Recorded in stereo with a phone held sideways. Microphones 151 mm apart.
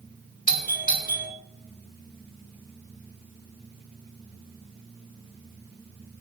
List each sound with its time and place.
0.5 s a doorbell: 60° left (ahead or behind), 2.0 m